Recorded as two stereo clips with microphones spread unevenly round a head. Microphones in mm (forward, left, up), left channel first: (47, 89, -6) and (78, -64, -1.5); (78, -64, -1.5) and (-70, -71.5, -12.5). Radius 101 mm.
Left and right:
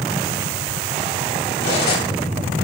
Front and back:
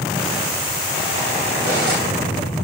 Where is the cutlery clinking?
110° left, 4.5 m.